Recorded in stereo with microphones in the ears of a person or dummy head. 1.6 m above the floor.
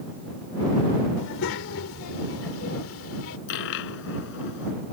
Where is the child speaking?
70° left (ahead or behind).